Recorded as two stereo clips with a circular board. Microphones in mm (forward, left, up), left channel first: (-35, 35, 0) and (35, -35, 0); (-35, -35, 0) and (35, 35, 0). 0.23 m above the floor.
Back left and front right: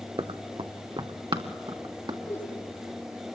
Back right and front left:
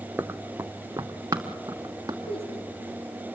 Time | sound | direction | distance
0.2 | running footsteps | 25° right | 0.7 m
2.3 | a woman speaking | 160° right | 6.5 m